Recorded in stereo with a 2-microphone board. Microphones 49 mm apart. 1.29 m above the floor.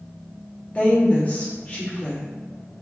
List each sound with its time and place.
0.8 s a woman speaking: 30° left (ahead or behind), 0.9 m